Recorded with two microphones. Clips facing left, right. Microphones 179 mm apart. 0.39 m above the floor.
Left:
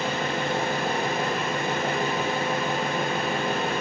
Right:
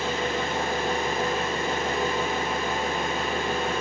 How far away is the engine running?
About 0.7 m.